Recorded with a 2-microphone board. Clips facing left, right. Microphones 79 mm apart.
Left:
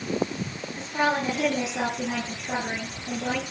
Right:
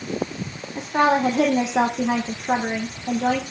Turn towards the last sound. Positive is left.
turn(degrees=-70)  # may be behind; listen again after turning